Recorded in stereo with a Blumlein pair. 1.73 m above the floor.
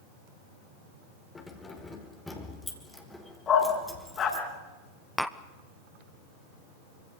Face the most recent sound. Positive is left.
turn(degrees=5)